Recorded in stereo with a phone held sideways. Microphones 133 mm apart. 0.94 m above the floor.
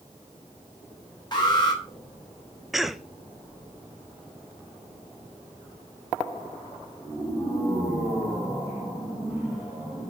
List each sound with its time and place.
1.3 s an alarm: 35° left (ahead or behind), 3 m
2.7 s a cough: centre (ahead or behind), 0.6 m